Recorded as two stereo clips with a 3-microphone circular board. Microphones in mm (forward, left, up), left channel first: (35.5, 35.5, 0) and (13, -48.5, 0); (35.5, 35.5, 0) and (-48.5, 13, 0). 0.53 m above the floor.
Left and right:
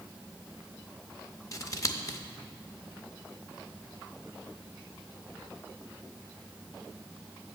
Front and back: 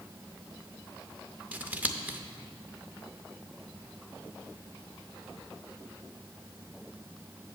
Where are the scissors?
125° left, 0.6 m.